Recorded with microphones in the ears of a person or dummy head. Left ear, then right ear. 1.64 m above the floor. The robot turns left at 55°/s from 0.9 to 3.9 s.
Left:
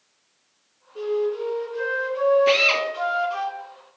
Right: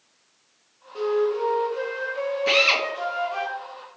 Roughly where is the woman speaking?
I don't hear a woman speaking.